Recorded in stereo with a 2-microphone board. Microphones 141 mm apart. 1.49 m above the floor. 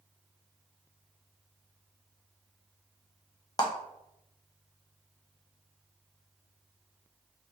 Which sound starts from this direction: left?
A clap, at 3.6 s.